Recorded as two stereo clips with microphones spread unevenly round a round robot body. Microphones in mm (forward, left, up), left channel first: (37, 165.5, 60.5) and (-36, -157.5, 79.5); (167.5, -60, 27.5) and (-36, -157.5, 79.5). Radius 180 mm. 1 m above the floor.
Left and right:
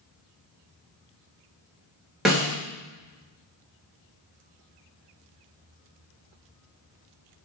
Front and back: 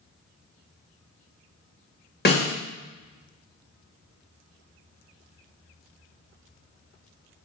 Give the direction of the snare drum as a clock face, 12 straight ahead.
12 o'clock.